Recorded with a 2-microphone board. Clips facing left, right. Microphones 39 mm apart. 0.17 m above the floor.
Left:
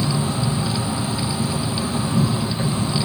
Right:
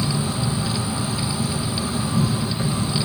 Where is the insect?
45° left (ahead or behind), 3 m.